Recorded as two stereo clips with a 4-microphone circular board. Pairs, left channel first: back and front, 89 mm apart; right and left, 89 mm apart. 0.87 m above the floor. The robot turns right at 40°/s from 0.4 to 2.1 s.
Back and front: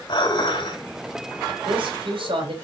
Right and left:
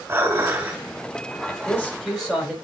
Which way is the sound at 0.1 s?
150° left.